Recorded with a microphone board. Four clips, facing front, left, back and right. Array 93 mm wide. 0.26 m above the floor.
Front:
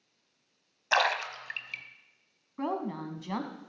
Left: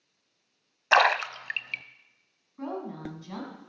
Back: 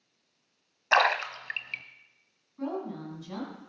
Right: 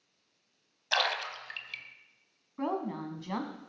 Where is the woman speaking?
35° right, 1.5 m.